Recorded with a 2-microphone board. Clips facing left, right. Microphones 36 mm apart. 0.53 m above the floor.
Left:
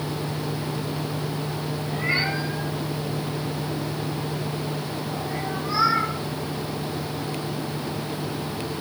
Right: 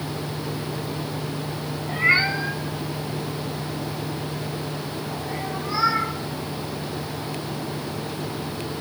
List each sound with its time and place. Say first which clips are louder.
1.9 s a cat meowing: right 6 dB; 40° right (ahead or behind), 1.3 m; by 6.1 s 15° right (ahead or behind), 4.5 m